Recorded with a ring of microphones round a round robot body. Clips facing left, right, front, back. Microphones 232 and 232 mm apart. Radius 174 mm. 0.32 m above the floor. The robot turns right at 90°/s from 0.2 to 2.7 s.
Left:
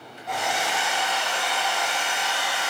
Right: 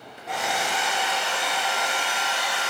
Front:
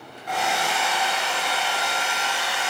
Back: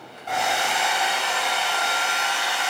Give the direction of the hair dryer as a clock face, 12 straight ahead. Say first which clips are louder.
Even, even; 6 o'clock.